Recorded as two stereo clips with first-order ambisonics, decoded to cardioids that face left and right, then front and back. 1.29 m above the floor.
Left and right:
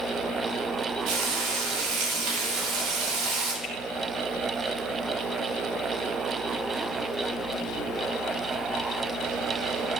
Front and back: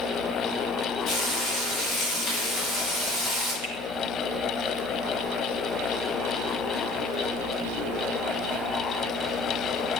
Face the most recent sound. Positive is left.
turn(degrees=-175)